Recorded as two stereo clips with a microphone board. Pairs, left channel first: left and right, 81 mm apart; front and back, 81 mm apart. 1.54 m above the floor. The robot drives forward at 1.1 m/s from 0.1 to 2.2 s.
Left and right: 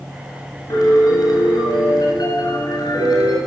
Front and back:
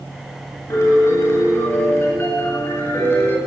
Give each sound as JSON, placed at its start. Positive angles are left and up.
{"t": 0.7, "sound": "a piano", "azimuth_deg": 50, "distance_m": 10.0}